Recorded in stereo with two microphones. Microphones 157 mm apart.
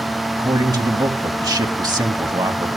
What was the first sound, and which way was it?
A man speaking, 25° right (ahead or behind).